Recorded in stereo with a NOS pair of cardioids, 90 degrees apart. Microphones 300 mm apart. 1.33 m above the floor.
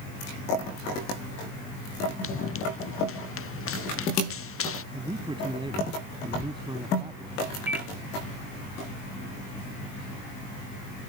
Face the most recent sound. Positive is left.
turn(degrees=-5)